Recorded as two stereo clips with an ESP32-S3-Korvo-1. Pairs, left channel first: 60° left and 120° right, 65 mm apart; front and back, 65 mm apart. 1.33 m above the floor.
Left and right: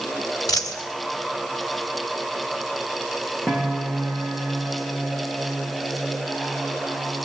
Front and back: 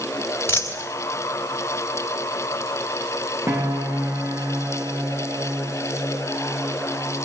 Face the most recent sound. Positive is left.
turn(degrees=145)